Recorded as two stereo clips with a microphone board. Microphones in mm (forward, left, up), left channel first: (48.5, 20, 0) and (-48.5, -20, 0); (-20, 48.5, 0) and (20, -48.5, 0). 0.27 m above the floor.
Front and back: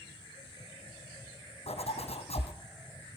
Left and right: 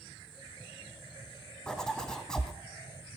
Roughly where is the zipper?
Ahead left.